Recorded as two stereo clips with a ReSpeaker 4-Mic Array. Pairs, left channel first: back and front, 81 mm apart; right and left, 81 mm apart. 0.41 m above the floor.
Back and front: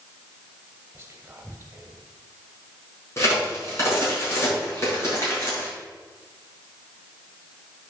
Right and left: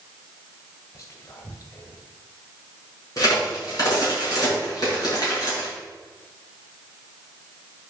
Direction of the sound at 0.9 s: 50° right.